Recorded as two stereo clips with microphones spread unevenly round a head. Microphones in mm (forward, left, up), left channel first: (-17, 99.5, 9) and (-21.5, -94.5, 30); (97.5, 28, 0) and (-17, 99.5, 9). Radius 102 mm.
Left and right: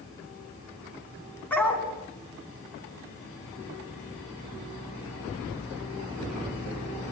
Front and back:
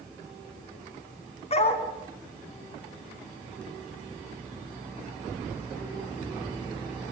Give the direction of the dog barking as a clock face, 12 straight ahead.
12 o'clock.